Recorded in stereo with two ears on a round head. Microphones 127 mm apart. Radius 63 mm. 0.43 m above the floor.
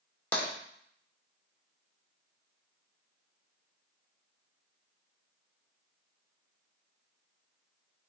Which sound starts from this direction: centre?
Tapping, at 0.3 s.